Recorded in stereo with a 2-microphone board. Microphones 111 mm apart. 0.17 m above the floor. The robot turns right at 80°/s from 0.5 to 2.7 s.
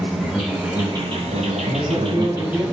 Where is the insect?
175° right, 1.1 m; by 2.7 s straight ahead, 1.1 m.